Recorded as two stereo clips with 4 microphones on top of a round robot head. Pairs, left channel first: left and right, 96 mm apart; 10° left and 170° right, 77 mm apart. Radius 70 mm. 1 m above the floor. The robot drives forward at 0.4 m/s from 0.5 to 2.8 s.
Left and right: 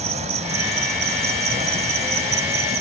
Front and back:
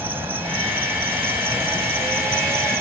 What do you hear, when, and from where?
0.0 s an insect: 100° right